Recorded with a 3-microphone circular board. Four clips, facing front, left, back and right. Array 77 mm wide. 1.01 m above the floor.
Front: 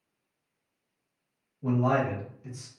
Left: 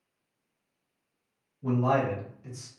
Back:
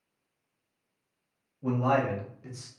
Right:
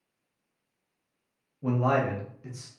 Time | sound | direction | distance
1.6 | a man speaking | 95° right | 0.9 m